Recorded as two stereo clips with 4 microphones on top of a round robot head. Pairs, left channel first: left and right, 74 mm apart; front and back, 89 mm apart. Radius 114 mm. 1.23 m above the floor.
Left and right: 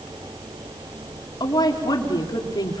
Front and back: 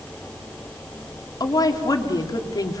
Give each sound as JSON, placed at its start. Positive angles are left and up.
{"t": 1.4, "sound": "a woman speaking", "azimuth_deg": 50, "distance_m": 2.5}